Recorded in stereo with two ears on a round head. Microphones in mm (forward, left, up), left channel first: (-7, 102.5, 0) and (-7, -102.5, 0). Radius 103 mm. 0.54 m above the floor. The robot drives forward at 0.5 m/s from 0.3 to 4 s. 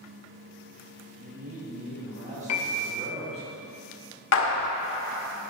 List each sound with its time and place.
1.2 s a man speaking: 40° right (ahead or behind), 3 m; by 3.5 s 30° right (ahead or behind), 3.5 m
2.5 s a piano: 70° left (ahead or behind), 0.7 m; by 2.9 s 90° left, 0.6 m
4.3 s a clap: 60° left (ahead or behind), 0.8 m